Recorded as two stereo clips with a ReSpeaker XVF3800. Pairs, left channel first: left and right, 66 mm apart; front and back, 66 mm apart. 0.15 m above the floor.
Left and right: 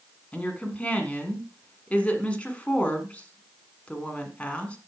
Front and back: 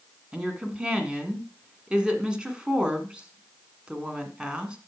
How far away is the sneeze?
I don't hear a sneeze.